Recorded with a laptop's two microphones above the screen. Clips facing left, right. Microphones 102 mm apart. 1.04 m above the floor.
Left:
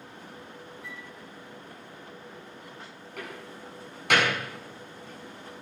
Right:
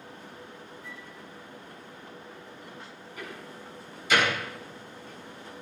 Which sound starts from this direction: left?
A door slam, at 3.2 s.